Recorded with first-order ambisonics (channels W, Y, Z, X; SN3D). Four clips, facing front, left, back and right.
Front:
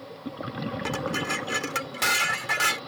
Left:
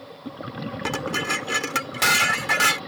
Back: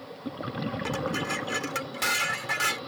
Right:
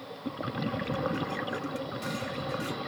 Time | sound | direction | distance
0.8 | dishes clattering | 80° left | ?